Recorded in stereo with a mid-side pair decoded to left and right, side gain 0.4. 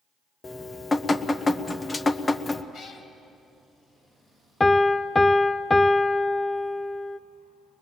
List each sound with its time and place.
0.4 s dripping: 35° left, 1.0 m
2.7 s a cat meowing: 70° left, 2.5 m
4.6 s a piano: 20° left, 0.6 m